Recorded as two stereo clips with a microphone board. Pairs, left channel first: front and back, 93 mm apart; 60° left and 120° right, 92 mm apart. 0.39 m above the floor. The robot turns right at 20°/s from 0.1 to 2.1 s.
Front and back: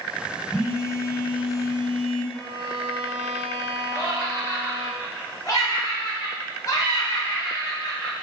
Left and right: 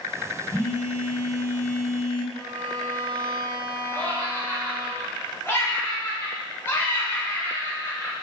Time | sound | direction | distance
0.5 | a phone buzzing | 35° left | 1.0 m
2.3 | a violin | 35° left | 0.9 m
3.9 | laughter | 10° left | 1.0 m